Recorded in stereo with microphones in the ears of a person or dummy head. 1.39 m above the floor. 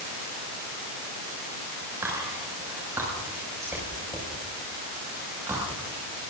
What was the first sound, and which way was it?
Whispering, 15° right (ahead or behind).